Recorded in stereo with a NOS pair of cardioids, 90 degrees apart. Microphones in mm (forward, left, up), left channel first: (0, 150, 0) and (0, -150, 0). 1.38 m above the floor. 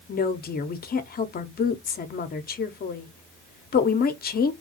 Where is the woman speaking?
30° left, 0.5 m.